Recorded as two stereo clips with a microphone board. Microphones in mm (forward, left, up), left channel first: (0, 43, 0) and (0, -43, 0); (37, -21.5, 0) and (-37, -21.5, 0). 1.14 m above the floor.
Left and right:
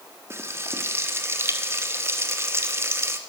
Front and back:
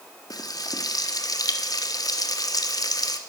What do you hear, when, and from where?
0.3 s frying: 30° right, 1.4 m